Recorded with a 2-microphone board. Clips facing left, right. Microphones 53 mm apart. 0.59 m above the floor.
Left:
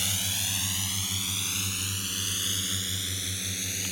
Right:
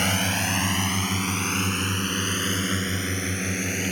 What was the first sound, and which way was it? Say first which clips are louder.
A drone: right 10 dB; 55° right (ahead or behind).